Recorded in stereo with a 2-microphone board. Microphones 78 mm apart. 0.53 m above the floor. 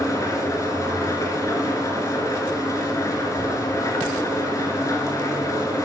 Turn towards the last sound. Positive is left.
turn(degrees=40)  # may be behind; listen again after turning